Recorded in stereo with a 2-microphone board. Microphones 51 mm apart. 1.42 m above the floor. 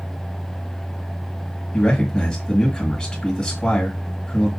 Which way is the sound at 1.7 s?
20° left (ahead or behind).